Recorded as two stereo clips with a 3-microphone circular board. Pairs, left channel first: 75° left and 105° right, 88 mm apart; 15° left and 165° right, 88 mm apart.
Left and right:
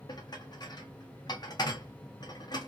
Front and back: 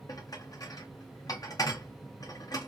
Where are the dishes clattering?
50° left, 1.0 m.